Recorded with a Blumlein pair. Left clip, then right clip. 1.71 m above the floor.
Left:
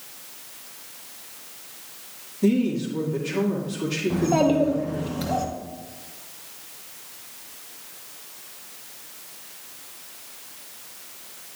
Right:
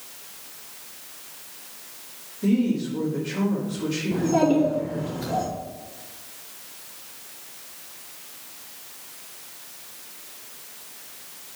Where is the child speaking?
55° left, 2 m.